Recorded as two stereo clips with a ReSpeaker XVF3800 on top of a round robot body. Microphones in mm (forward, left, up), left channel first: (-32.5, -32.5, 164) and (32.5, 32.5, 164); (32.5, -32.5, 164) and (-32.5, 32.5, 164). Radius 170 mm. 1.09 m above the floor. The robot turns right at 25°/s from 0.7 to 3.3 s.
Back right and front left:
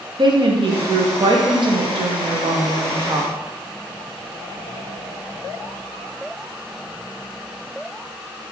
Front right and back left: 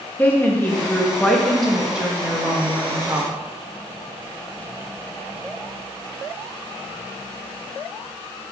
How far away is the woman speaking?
About 1.0 m.